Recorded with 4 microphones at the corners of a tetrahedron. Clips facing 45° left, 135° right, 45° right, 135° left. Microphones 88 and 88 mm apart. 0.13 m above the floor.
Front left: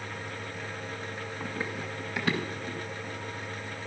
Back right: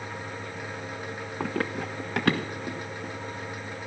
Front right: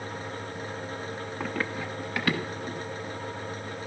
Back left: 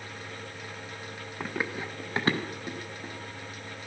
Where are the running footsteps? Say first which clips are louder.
Back right 7 dB, even; 135° right, 1.1 m; by 3.1 s 175° right, 3.5 m.